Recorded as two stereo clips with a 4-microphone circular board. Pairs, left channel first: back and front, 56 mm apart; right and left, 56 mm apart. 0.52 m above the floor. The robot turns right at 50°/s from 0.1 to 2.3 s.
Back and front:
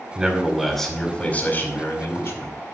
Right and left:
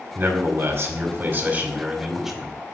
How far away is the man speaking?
About 1.6 m.